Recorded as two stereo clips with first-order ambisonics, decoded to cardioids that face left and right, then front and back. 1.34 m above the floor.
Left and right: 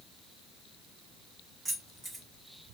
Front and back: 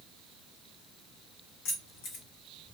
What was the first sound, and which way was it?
Keys jangling, 15° right.